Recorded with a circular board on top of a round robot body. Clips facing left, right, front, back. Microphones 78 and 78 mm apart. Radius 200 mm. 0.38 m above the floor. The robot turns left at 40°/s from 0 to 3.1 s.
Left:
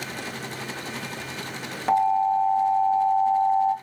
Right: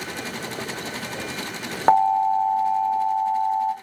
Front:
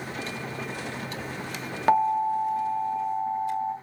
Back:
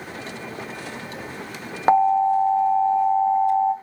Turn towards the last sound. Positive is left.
turn(degrees=-165)